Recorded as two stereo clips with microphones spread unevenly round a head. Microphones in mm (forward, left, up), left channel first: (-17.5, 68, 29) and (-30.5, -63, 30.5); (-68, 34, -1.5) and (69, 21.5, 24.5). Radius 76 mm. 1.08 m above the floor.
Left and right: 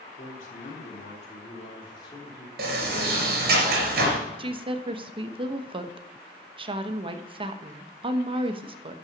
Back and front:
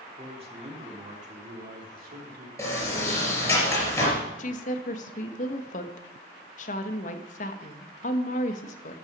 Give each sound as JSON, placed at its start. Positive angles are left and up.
{"t": 0.2, "sound": "a man speaking", "azimuth_deg": 50, "distance_m": 3.5}
{"t": 2.6, "sound": "a sliding door", "azimuth_deg": -110, "distance_m": 4.0}
{"t": 4.4, "sound": "a woman speaking", "azimuth_deg": -150, "distance_m": 1.2}